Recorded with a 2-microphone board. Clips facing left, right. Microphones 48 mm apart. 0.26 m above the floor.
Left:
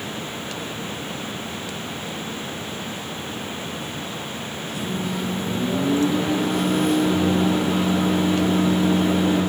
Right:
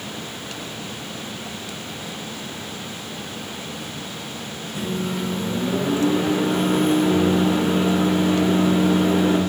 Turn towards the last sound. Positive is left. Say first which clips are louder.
# right 2 dB
turn(degrees=-30)  # may be behind; listen again after turning